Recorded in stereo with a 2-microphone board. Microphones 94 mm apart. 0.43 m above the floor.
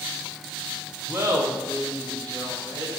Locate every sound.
1.1 s laughter: 25° right (ahead or behind), 0.8 m; by 3.0 s 40° right (ahead or behind), 1.9 m